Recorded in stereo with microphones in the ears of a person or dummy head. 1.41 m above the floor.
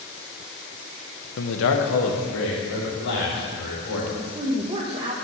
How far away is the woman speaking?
About 1.4 m.